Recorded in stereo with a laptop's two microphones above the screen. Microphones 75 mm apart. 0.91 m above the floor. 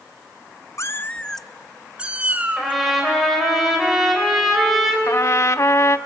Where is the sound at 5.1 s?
45° left (ahead or behind), 0.7 m.